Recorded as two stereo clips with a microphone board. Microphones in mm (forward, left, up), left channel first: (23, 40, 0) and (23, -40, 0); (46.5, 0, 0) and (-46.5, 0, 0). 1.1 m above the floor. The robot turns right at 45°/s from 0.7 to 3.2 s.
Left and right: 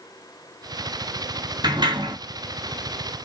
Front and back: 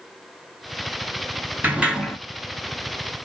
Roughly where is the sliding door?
Right.